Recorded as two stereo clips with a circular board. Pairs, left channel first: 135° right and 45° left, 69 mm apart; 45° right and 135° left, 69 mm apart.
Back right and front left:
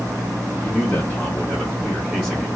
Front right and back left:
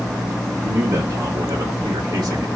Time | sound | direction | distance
0.6 | a man speaking | 170° left | 0.8 m